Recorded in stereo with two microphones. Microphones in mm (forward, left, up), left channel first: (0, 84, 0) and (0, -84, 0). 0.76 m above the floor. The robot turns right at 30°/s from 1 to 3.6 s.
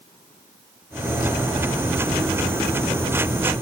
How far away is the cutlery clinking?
I don't hear cutlery clinking.